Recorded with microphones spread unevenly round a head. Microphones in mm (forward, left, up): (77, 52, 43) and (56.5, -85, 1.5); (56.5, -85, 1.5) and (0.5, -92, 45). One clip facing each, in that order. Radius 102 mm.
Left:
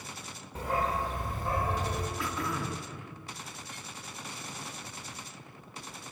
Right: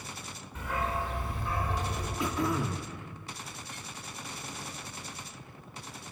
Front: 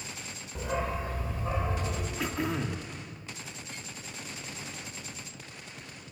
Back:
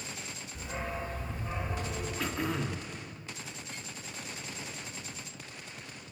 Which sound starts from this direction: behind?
Throat clearing, at 2.2 s.